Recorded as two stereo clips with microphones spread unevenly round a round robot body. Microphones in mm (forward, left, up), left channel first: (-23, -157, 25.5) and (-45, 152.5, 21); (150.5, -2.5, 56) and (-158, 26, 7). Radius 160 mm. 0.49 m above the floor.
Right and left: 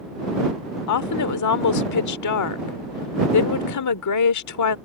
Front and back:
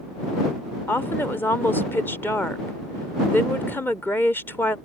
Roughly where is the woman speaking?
Right.